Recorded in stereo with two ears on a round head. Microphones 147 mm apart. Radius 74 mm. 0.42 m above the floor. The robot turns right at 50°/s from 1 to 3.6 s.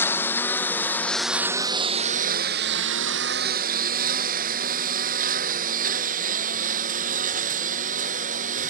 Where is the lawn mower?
15° left (ahead or behind); by 8.7 s 50° right (ahead or behind).